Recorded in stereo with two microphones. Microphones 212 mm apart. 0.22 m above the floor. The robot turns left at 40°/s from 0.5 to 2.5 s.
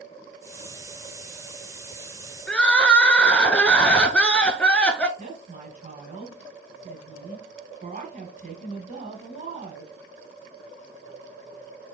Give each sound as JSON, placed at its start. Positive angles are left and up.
{"t": 2.5, "sound": "crying", "side_deg": 5, "distance_m": 0.6}
{"t": 5.2, "sound": "a woman speaking", "side_deg": -40, "distance_m": 1.9}